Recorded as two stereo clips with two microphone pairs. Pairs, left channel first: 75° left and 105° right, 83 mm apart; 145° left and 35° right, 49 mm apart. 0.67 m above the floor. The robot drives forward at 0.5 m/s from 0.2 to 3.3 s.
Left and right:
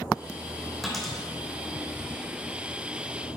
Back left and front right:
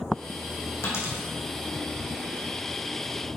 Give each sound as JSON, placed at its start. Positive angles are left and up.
{"t": 0.8, "sound": "a dropped coin", "azimuth_deg": 165, "distance_m": 2.5}